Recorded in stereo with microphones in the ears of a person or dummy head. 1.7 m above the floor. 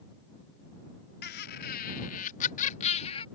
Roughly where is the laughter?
Left.